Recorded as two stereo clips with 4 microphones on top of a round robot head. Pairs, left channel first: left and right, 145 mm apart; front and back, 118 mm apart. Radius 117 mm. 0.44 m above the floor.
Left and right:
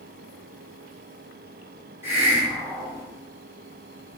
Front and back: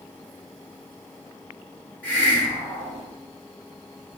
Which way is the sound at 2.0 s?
55° right.